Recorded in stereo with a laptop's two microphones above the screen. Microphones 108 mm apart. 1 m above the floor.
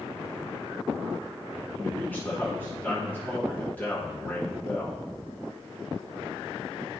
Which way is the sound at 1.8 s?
20° left (ahead or behind).